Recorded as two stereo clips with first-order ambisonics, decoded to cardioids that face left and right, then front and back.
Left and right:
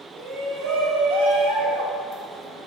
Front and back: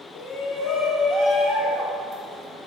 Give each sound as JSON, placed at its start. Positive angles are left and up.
{"t": 0.1, "sound": "a shout", "azimuth_deg": -35, "distance_m": 1.7}